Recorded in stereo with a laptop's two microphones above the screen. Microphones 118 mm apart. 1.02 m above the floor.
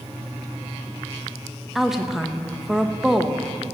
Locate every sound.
1.8 s a woman speaking: 5° right (ahead or behind), 1.2 m